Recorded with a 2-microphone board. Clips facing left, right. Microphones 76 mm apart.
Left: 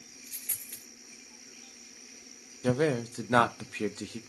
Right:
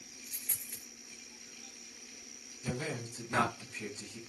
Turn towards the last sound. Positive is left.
turn(degrees=75)  # may be behind; listen again after turning